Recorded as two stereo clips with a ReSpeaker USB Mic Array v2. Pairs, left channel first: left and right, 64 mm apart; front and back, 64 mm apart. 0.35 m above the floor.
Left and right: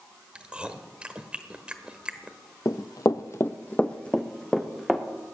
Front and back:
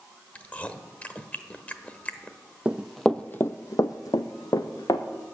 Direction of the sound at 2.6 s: 110° left.